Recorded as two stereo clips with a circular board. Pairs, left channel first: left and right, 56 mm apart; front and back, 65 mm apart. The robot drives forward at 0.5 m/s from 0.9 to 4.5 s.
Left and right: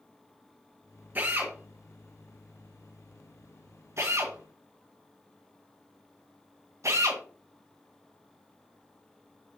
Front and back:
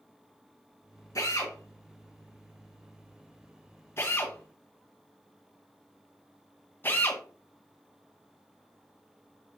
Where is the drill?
30° right, 3 m; by 7.2 s 60° right, 2 m.